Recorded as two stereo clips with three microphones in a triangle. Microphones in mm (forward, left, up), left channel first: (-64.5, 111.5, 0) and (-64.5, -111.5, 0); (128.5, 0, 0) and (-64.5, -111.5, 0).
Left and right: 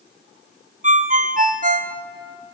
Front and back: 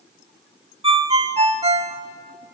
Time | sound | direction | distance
0.8 | a ringtone | 105° right | 1.0 m